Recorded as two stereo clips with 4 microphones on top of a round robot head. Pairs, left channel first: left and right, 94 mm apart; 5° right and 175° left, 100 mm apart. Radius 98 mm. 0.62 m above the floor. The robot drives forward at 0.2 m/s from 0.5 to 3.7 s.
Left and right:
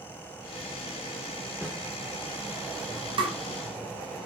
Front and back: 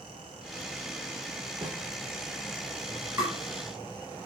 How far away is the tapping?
About 0.7 m.